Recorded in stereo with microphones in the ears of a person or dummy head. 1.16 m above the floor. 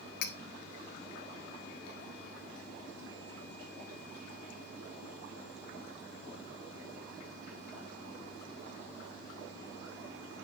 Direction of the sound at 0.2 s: 55° left (ahead or behind).